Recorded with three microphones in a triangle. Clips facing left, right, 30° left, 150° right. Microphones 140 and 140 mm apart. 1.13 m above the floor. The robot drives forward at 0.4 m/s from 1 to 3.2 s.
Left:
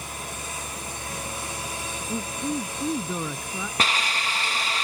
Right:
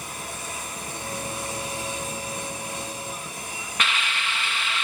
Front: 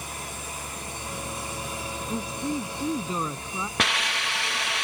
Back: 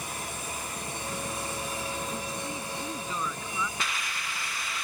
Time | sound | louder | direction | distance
2.1 | a man speaking | left 5 dB, front 6 dB | 80° left | ?
3.8 | a hiss | left 1 dB, front 7 dB | 40° left | ?